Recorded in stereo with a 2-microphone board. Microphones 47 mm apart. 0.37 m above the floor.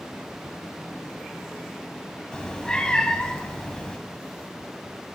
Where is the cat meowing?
20° left (ahead or behind), 0.5 m.